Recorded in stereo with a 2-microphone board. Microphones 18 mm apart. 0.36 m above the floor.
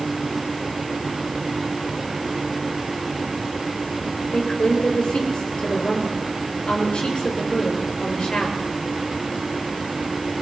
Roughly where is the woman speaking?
Left.